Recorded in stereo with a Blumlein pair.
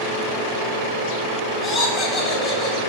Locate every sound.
1.6 s laughter: 20° left, 3.5 m